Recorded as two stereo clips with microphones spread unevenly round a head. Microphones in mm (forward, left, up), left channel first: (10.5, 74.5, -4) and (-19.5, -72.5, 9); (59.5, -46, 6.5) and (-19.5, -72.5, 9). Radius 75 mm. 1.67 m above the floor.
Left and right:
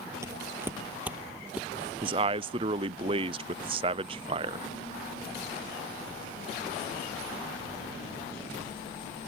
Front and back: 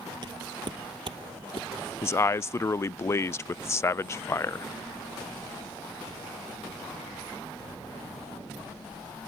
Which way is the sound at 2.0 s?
40° right.